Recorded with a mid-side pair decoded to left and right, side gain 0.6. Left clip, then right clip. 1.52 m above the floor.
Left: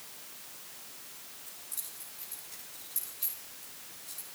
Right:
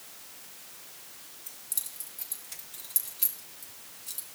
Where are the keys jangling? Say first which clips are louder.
Right 6 dB; 55° right, 3.5 m; by 4.2 s 60° right, 2 m.